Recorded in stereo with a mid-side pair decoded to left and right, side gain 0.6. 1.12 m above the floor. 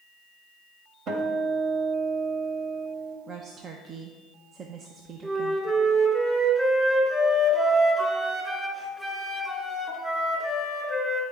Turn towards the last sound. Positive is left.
turn(degrees=-5)